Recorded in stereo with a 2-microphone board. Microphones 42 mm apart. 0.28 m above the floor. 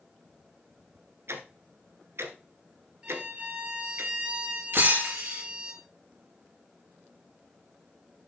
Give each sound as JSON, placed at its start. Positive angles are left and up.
{"t": 1.3, "sound": "ticking", "side_deg": -80, "distance_m": 1.4}
{"t": 3.0, "sound": "a violin", "side_deg": -20, "distance_m": 2.0}
{"t": 4.7, "sound": "breaking glass", "side_deg": -60, "distance_m": 3.5}